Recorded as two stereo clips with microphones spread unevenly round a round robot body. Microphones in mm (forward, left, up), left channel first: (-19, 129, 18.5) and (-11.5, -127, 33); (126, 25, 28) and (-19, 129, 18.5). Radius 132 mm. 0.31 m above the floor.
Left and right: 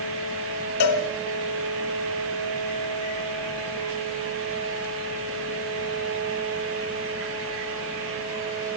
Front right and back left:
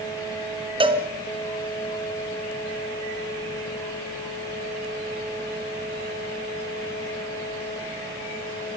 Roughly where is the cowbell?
Left.